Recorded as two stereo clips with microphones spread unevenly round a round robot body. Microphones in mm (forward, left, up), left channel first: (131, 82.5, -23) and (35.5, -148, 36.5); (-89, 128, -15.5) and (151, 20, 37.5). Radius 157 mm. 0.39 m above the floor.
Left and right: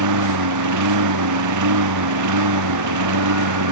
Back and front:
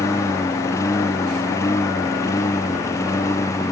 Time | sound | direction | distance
0.0 | a lawn mower | 125° right | ?